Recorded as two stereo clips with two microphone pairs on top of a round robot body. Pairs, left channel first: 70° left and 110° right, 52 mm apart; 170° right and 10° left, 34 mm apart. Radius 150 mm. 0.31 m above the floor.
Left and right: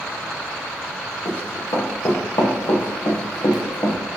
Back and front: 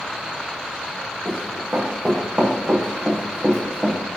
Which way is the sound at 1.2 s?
90° left.